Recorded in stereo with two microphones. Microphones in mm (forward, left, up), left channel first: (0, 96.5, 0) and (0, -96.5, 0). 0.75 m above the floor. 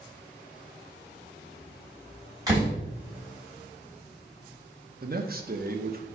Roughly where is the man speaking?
Right.